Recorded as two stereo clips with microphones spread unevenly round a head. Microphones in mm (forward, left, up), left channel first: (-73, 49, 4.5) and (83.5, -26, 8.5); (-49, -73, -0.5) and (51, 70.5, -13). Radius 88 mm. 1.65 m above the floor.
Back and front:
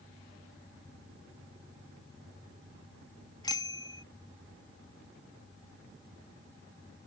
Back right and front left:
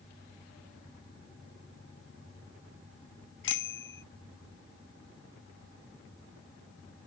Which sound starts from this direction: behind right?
A bicycle bell, at 3.4 s.